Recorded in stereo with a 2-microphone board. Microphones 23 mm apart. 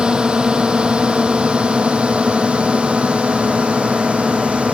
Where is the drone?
45° right (ahead or behind); by 4.8 s 70° right (ahead or behind).